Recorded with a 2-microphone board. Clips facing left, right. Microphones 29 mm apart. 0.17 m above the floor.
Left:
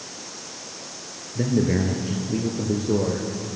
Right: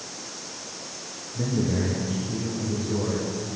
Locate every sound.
1.4 s a man speaking: 35° left (ahead or behind), 2.5 m; by 3.5 s 65° left (ahead or behind), 4 m